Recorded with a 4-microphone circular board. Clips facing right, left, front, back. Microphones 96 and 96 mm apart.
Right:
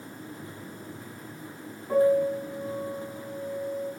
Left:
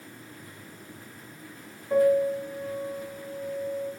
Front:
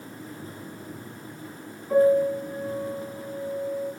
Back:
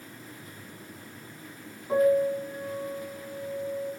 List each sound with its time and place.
1.9 s a piano: 115° right, 5.5 m